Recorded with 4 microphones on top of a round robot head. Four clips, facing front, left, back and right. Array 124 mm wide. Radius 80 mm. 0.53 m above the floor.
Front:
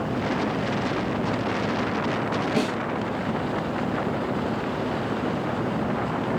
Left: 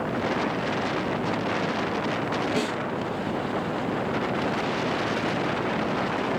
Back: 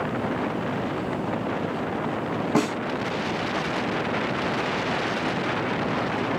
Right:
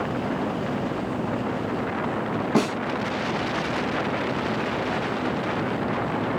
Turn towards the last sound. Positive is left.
turn(degrees=-140)